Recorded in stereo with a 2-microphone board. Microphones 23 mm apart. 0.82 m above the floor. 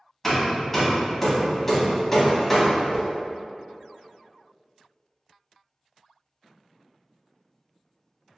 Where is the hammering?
5° left (ahead or behind), 0.9 m.